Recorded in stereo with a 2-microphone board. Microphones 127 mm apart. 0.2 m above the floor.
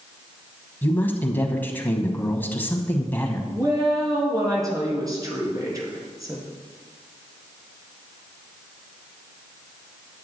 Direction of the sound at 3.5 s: 30° right (ahead or behind).